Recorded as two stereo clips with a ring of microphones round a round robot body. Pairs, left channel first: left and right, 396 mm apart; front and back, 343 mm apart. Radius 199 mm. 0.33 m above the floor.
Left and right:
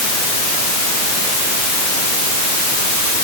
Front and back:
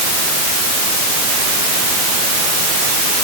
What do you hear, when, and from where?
Only background noise.